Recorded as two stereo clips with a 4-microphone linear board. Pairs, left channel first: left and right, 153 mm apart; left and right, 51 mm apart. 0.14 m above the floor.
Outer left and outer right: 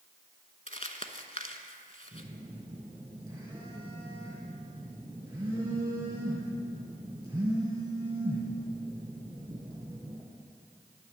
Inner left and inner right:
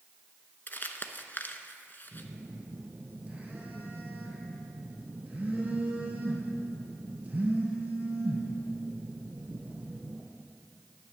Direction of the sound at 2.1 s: 30° right (ahead or behind).